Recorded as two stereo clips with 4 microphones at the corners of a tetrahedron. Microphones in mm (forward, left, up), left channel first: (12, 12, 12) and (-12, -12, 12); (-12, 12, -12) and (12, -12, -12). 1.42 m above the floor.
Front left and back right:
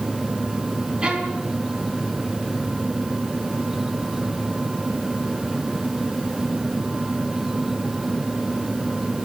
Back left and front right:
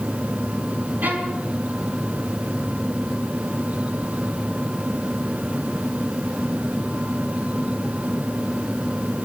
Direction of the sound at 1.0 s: 75° right.